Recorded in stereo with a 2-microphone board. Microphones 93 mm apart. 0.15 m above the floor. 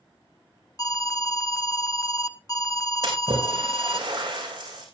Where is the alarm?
40° left (ahead or behind), 0.9 m.